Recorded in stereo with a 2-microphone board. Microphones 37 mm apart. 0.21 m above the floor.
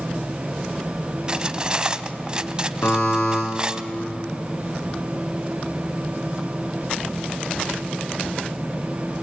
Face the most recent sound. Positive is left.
turn(degrees=90)